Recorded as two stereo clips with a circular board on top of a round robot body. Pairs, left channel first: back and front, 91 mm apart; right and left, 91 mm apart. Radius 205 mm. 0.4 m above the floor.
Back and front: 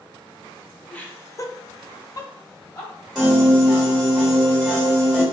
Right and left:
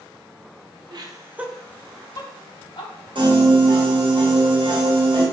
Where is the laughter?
105° left, 1.0 m; by 2.9 s 120° right, 1.8 m.